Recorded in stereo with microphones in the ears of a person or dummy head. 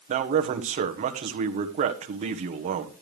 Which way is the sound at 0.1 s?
40° right (ahead or behind).